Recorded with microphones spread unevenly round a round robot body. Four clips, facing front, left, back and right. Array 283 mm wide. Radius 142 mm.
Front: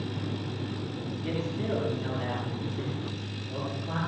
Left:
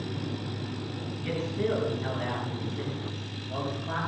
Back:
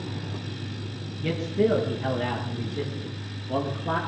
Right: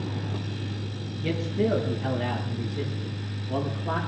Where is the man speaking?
150° right, 5 m; by 4.0 s 155° right, 6.5 m.